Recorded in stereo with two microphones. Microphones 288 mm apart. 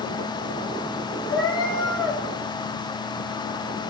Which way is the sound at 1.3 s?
55° left (ahead or behind).